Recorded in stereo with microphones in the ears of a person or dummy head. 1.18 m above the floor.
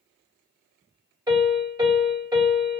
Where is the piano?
20° right (ahead or behind), 2.5 m.